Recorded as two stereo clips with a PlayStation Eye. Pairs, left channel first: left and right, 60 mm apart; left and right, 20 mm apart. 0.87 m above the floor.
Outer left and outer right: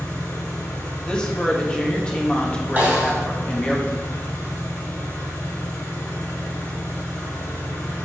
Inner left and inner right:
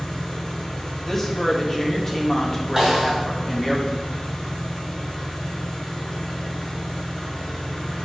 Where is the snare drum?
30° right (ahead or behind), 2.5 m.